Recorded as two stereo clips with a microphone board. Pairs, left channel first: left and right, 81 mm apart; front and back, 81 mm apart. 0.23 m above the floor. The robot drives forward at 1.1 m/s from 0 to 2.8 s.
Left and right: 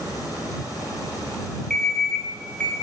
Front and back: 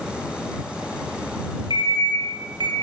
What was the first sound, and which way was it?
An alarm clock, 5° left.